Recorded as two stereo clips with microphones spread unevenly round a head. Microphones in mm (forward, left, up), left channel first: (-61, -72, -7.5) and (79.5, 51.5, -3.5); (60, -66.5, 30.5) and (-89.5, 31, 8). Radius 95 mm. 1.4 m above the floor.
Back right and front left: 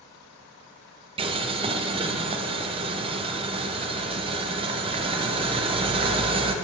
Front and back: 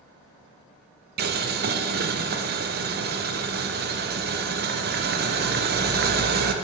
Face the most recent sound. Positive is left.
turn(degrees=105)